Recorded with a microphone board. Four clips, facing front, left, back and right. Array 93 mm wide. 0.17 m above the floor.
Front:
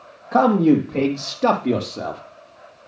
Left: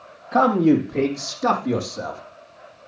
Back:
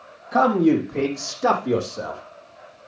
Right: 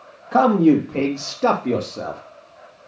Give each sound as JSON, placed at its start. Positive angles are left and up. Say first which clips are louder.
{"t": 0.3, "sound": "a man speaking", "louder": "right 2 dB, front 2 dB", "azimuth_deg": -55, "distance_m": 5.0}